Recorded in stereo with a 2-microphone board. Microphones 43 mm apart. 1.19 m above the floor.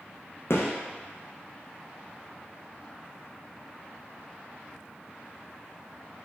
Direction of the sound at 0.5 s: 75° left (ahead or behind).